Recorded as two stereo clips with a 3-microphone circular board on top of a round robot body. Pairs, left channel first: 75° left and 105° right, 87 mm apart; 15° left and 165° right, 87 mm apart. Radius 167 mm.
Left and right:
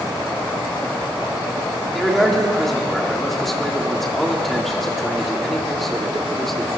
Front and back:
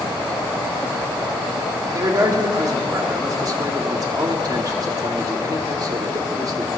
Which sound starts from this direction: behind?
A man speaking, at 1.9 s.